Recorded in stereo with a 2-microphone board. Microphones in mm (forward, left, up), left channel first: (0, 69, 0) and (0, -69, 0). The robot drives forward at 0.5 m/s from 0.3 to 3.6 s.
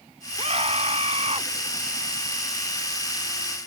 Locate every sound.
0.4 s a scream: 45° right (ahead or behind)